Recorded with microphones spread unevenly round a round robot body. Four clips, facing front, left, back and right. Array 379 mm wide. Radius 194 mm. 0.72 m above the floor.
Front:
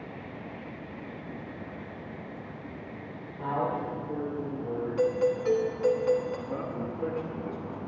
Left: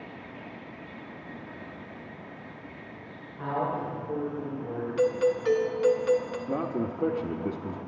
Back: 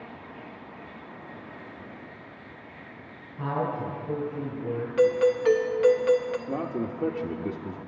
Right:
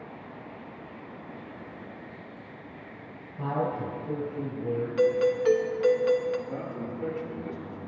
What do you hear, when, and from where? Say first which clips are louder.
3.4 s a man speaking: even, back 1 dB; 130° right, 3.5 m
5.0 s a doorbell: right 1 dB, back 5 dB; 150° right, 1.2 m
6.5 s a man speaking: left 5 dB, back 4 dB; 120° left, 1.0 m